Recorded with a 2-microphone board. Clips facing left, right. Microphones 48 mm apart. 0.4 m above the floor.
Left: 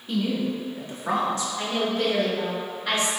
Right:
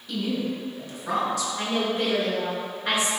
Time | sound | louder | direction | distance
0.1 | a woman speaking | left 2 dB | 35° left (ahead or behind) | 0.9 m
1.6 | a woman speaking | left 1 dB | 20° right (ahead or behind) | 0.9 m